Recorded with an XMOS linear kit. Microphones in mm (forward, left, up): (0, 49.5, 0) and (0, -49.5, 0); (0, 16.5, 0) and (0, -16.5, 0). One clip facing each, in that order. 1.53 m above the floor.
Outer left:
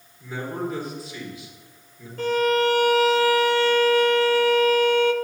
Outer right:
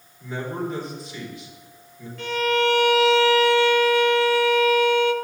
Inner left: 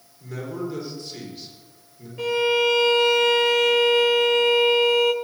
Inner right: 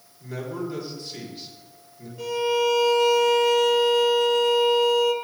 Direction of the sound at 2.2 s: 40° left (ahead or behind).